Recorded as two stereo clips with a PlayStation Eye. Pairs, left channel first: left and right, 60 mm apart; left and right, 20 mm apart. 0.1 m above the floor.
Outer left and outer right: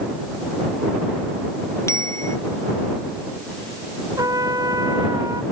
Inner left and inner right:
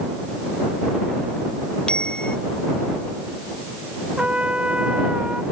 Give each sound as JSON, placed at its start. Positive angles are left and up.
{"t": 1.9, "sound": "a bicycle bell", "side_deg": 50}
{"t": 4.2, "sound": "a trumpet", "side_deg": -85}